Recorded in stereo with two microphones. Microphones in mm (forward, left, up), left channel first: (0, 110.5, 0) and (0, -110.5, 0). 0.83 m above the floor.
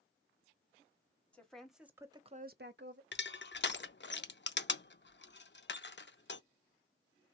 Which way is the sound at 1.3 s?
5° left (ahead or behind).